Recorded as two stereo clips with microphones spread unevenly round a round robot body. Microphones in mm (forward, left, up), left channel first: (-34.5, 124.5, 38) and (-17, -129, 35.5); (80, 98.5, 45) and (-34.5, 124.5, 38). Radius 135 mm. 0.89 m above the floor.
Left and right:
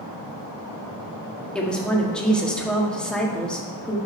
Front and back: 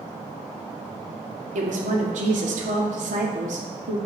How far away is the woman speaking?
About 1.4 m.